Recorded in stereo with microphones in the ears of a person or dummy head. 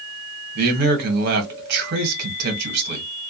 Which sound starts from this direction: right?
A man speaking, at 0.6 s.